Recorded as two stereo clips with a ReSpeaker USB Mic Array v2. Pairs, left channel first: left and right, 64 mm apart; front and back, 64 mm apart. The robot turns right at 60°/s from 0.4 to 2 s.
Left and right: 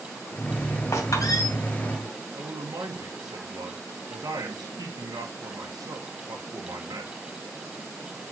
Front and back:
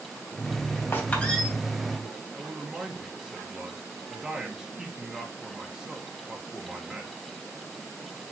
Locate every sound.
0.9 s a squeak: 55° left, 3 m; by 1.5 s 90° left, 3 m
2.4 s a man speaking: 100° right, 1.7 m